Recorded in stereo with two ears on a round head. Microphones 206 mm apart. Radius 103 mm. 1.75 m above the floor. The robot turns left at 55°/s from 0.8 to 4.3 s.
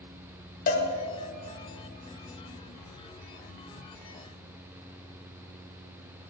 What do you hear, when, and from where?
0.7 s a cowbell: 40° left (ahead or behind), 0.8 m